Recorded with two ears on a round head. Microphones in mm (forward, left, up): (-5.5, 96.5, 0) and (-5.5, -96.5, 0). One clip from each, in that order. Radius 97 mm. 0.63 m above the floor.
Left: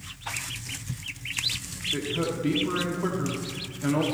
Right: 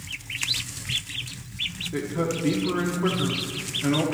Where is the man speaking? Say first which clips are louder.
Left 3 dB; centre (ahead or behind), 1.1 m.